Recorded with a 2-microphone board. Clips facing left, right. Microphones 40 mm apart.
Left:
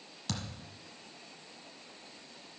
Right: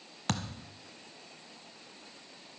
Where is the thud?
50° right (ahead or behind), 0.9 m.